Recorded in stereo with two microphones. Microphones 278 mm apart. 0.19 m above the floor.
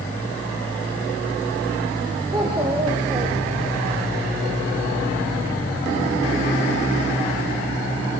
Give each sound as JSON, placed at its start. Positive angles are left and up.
{"t": 2.3, "sound": "a child speaking", "side_deg": -15, "distance_m": 5.0}